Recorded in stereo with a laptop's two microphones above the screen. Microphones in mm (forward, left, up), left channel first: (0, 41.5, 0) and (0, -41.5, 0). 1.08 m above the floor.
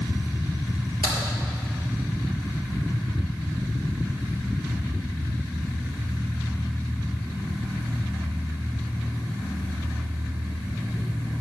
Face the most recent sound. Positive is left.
turn(degrees=-75)  # may be behind; listen again after turning